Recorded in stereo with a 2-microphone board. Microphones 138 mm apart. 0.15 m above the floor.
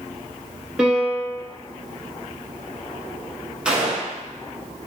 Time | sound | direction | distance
0.8 | a piano | 5° right (ahead or behind) | 1.0 m
3.6 | a gunshot | 10° right (ahead or behind) | 0.7 m